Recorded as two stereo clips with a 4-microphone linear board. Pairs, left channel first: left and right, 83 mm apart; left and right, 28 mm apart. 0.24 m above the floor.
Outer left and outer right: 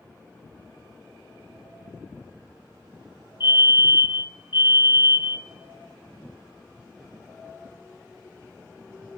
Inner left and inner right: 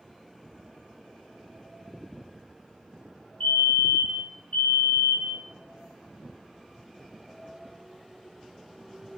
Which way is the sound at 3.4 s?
65° left (ahead or behind).